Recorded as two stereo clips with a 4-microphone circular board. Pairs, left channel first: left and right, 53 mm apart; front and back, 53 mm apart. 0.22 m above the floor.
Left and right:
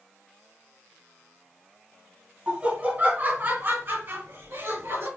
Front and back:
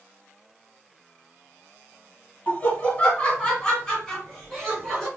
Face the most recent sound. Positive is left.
turn(degrees=-85)